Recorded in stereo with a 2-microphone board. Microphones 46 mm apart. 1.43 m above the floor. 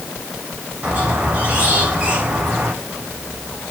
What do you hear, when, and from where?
0.8 s a squeak: 30° right (ahead or behind), 5.5 m